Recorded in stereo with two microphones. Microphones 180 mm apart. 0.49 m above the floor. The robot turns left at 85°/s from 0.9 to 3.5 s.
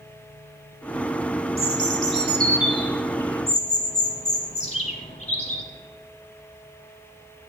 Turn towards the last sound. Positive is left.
turn(degrees=140)